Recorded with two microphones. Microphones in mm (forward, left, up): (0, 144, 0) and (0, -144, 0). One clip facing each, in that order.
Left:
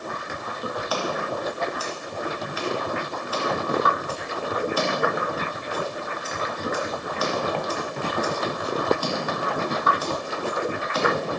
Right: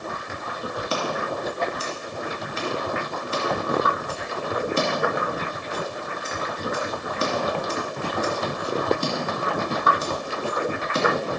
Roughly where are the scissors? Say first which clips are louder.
Right 1 dB; right.